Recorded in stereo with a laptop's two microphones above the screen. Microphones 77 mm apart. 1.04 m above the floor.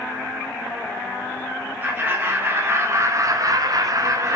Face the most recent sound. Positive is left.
turn(degrees=-40)  # may be behind; listen again after turning